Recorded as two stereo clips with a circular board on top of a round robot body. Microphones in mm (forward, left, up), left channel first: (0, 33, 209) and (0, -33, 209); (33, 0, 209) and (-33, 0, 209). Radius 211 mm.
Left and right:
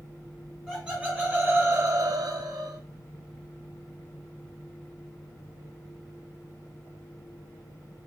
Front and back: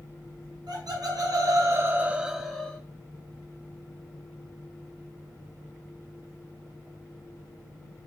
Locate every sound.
0.7 s laughter: 170° left, 1.4 m; by 2.8 s 65° right, 1.0 m